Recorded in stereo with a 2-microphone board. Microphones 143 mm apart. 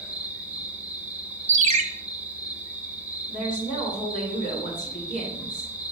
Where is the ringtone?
55° right (ahead or behind), 0.8 m.